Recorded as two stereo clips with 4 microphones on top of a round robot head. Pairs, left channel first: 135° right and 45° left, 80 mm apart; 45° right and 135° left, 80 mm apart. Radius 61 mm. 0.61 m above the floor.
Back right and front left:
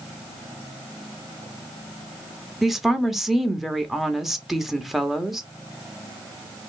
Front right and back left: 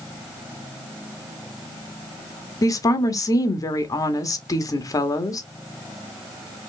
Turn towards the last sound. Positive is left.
turn(degrees=-40)